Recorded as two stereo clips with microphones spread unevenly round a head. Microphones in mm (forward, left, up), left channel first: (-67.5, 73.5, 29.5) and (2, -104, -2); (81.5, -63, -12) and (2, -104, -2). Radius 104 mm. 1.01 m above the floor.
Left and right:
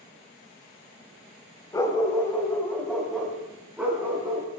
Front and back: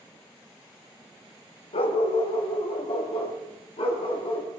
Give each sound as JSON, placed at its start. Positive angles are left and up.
{"t": 1.7, "sound": "a dog barking", "azimuth_deg": 35, "distance_m": 2.5}